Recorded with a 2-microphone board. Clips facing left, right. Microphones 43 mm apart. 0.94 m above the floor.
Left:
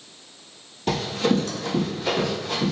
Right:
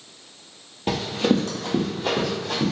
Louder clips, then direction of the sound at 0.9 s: Right 1 dB; 20° right (ahead or behind).